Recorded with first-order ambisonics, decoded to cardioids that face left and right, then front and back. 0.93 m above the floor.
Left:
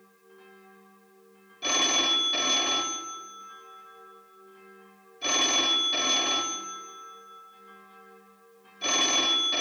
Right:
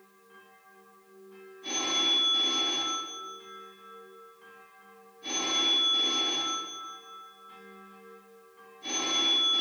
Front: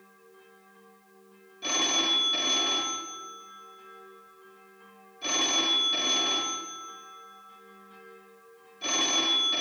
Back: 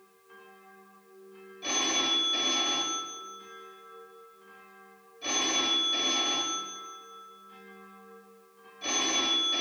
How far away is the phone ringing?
About 1.3 m.